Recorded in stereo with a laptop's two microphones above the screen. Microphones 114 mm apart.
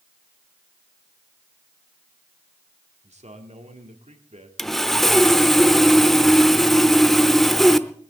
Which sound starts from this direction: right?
A man speaking, at 3.0 s.